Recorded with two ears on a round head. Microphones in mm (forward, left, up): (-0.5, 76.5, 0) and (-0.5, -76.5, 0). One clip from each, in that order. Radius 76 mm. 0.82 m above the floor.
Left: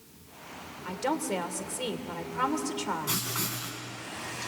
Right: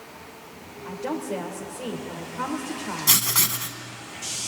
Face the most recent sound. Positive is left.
turn(degrees=-60)  # may be behind; listen again after turning